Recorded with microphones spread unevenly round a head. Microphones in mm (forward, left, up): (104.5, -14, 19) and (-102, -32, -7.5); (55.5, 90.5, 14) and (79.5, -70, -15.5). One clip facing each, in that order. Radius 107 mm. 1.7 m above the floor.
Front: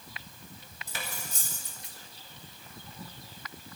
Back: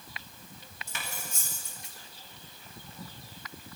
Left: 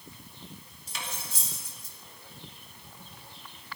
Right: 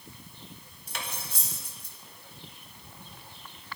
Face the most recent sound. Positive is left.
turn(degrees=-45)